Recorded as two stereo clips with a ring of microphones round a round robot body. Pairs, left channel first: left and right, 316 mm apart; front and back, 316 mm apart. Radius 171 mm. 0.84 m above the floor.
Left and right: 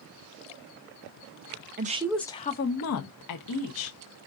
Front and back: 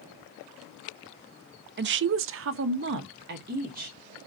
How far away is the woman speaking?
About 0.5 m.